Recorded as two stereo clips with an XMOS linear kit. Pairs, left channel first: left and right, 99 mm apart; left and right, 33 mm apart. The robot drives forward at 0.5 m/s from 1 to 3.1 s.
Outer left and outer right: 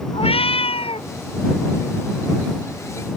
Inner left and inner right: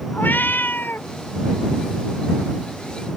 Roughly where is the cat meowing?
Left.